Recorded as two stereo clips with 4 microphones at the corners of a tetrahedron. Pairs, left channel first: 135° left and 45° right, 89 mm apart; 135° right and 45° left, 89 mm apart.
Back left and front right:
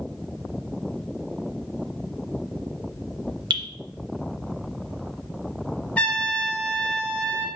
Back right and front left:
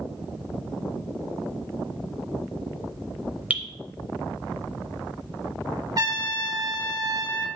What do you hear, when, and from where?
3.5 s dripping: 25° right, 0.7 m
6.0 s a trumpet: 70° left, 0.6 m